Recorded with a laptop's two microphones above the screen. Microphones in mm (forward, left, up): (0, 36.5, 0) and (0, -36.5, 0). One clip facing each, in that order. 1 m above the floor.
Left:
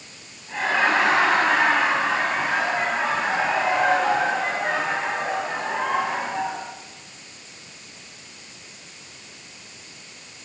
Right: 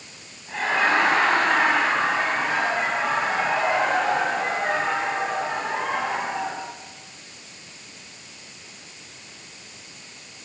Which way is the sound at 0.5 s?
Centre (ahead or behind).